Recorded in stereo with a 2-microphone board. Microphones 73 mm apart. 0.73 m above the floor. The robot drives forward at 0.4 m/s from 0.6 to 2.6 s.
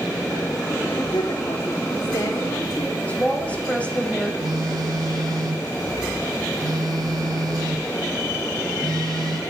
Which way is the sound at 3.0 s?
20° left (ahead or behind).